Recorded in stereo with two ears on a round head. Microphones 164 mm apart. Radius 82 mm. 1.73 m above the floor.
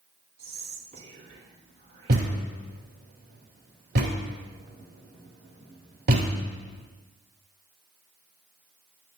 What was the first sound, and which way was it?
Whispering, 35° right (ahead or behind).